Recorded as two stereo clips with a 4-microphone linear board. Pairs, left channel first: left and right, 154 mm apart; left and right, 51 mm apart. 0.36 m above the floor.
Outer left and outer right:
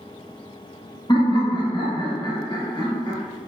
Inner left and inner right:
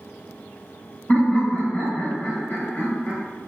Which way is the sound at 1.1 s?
30° left (ahead or behind).